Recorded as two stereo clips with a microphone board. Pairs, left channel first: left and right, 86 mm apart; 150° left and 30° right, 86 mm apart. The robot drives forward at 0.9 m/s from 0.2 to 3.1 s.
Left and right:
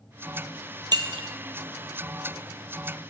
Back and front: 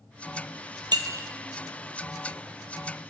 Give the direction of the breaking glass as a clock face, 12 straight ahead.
2 o'clock.